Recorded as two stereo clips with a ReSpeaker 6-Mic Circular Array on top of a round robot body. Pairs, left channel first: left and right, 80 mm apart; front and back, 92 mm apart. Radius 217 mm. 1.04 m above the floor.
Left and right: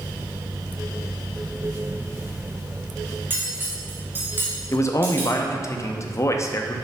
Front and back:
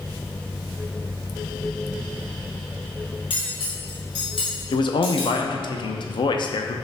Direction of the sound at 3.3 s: 25° right.